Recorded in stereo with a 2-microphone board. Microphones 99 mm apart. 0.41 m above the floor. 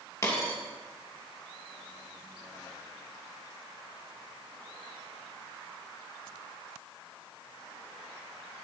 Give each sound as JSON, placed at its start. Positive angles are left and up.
{"t": 0.2, "sound": "a dropped coin", "side_deg": 30, "distance_m": 2.5}